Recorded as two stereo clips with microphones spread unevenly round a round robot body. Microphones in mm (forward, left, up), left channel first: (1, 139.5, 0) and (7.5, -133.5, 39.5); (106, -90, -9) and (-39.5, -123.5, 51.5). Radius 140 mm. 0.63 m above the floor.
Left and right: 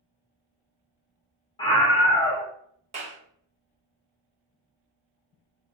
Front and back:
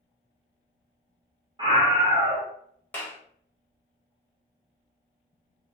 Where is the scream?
110° left, 0.7 m.